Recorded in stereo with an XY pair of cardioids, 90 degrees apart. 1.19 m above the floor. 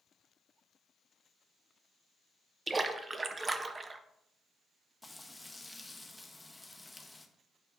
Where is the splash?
35° right, 0.6 m.